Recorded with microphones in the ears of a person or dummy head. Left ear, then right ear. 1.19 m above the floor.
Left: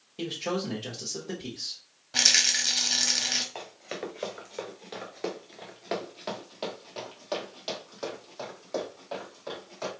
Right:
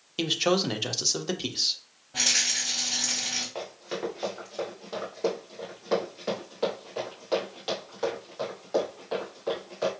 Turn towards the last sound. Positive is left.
turn(degrees=5)  # may be behind; listen again after turning